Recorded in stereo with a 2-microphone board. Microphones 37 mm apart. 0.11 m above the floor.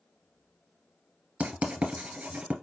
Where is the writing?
35° right (ahead or behind), 1.1 m.